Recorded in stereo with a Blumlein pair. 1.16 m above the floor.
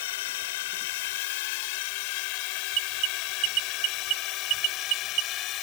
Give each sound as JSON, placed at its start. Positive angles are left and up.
{"t": 0.0, "sound": "a drone", "azimuth_deg": 55}
{"t": 2.7, "sound": "an alarm", "azimuth_deg": -40}